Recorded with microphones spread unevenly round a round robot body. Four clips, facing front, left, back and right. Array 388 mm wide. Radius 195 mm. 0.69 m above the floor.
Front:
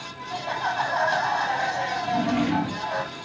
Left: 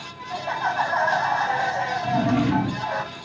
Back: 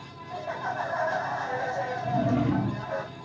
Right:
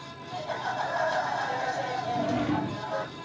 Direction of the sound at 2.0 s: 105° left.